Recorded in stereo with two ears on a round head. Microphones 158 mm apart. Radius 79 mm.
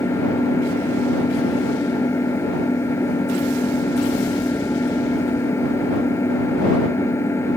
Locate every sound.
0.0 s an engine running: 15° left (ahead or behind)